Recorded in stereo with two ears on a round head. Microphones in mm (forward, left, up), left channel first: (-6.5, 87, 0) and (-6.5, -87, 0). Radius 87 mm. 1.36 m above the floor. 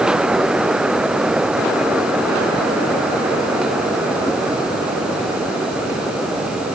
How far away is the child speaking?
I don't hear a child speaking.